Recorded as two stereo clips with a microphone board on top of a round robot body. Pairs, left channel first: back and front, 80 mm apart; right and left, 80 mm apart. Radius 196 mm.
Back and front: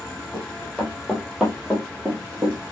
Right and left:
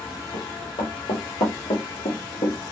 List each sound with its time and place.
0.3 s running footsteps: 95° right, 2 m; by 2.6 s 75° right, 1.2 m